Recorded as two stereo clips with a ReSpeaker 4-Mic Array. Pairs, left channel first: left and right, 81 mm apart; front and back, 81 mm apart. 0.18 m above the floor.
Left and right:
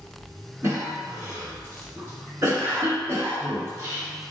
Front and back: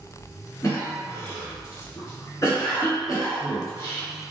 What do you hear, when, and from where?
0.6 s a cough: 40° right, 1.9 m